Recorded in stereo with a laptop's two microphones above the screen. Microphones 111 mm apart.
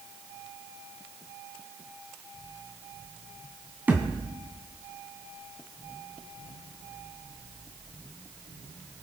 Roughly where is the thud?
Centre.